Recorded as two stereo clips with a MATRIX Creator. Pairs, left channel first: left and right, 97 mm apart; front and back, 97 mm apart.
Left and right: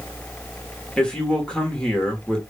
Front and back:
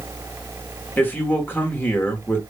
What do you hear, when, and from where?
1.0 s a man speaking: 25° left, 1.0 m